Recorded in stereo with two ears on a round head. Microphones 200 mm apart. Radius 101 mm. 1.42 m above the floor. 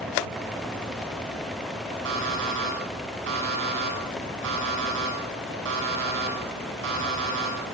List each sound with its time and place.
2.0 s an alarm clock: 65° right (ahead or behind), 8.5 m